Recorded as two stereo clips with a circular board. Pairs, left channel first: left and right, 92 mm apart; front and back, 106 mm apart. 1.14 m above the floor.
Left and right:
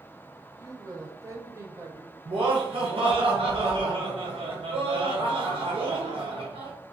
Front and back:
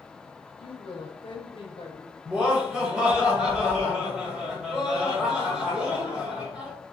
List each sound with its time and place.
0.6 s a woman speaking: 35° right, 0.5 m
2.2 s laughter: 100° right, 1.1 m